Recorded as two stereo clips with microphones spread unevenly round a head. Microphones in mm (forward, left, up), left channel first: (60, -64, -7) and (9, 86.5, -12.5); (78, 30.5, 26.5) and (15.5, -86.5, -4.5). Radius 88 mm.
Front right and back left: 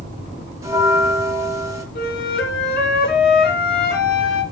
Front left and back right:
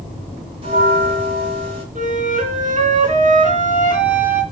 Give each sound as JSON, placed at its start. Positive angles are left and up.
{"t": 0.6, "sound": "a bell", "azimuth_deg": 180, "distance_m": 1.4}
{"t": 1.9, "sound": "a flute", "azimuth_deg": -85, "distance_m": 3.0}